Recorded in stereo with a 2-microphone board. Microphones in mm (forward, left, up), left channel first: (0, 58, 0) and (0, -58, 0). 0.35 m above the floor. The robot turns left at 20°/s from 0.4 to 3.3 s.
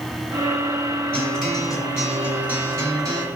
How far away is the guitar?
About 2.5 m.